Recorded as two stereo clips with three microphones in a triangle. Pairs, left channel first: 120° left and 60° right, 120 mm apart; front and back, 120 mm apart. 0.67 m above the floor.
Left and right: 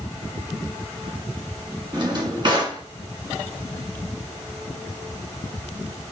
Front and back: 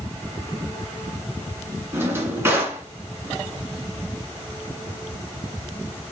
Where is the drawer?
110° right, 2.5 m.